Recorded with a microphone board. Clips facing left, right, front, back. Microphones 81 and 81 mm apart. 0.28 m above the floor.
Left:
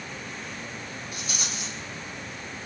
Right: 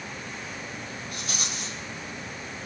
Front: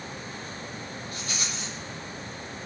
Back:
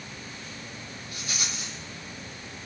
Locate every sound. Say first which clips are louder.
1.1 s a rattle: right 1 dB, back 1 dB; 100° right, 8.5 m